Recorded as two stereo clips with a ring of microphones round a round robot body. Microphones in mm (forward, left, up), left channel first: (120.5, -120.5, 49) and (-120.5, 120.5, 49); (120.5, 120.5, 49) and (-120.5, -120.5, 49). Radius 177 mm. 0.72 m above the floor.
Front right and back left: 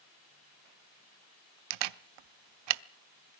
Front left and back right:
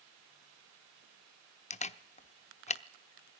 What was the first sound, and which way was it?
A camera shutter, 115° left.